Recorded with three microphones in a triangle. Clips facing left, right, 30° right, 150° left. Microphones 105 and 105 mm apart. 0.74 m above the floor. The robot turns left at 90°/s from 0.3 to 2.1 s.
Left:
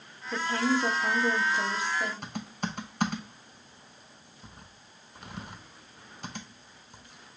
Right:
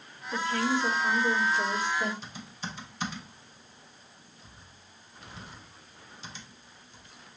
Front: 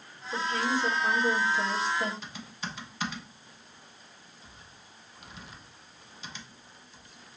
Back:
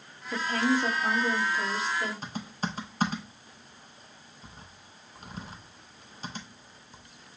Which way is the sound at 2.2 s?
110° left.